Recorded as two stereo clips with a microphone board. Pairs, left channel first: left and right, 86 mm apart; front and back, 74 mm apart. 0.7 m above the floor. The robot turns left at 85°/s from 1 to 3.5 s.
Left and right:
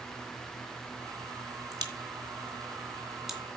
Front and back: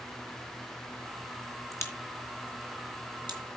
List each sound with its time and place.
1.7 s a crack: 45° right, 2.5 m; by 3.4 s 175° left, 2.5 m